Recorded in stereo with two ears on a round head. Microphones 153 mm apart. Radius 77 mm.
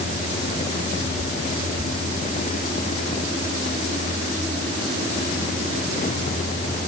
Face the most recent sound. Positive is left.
No sound to turn to.